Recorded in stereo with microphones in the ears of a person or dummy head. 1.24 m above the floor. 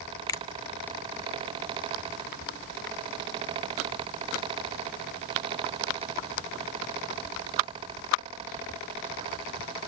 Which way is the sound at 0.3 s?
20° left (ahead or behind).